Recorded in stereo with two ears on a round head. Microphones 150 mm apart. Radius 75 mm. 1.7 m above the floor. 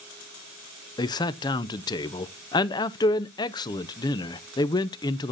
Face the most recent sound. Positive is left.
turn(degrees=25)  # may be behind; listen again after turning